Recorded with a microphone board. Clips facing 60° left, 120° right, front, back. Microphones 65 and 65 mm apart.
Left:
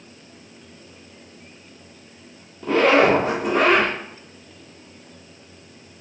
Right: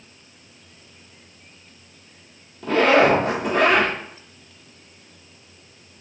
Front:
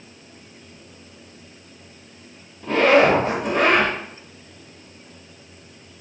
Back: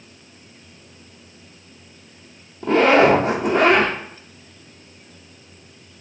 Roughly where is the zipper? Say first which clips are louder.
Even, back 1 dB; behind left.